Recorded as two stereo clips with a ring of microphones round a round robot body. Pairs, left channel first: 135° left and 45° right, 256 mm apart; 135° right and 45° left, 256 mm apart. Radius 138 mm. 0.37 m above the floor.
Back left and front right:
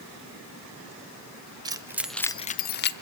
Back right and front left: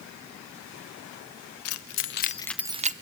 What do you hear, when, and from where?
1.6 s keys jangling: 120° right, 1.2 m; by 2.9 s 100° left, 0.9 m